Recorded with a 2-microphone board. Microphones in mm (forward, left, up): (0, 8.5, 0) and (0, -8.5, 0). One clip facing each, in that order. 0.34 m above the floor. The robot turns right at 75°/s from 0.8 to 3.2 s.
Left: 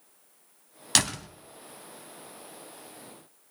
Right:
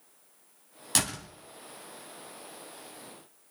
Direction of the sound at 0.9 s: 45° left (ahead or behind).